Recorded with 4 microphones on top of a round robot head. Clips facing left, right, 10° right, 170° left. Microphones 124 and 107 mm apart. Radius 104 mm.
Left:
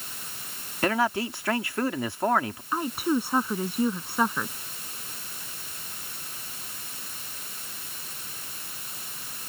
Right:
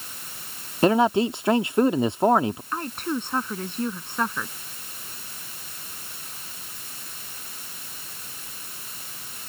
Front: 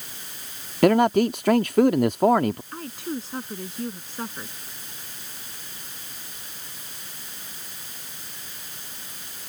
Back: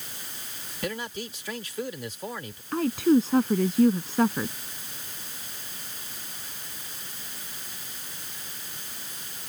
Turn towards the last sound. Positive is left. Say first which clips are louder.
# left 3 dB, back 11 dB
turn(degrees=175)